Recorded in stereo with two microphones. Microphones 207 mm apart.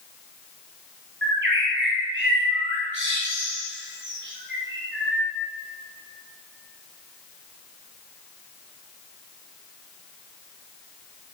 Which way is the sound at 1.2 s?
60° right (ahead or behind).